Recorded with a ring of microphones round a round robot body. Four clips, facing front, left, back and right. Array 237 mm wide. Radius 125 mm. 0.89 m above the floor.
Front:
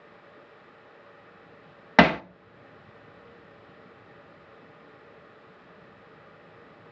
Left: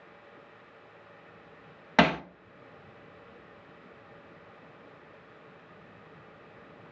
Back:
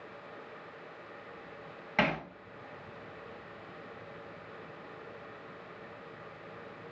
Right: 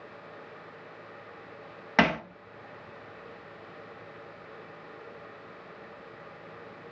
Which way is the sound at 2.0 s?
5° left.